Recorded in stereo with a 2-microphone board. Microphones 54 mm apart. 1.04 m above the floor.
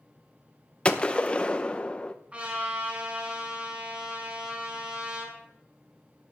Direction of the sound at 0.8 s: 20° left (ahead or behind).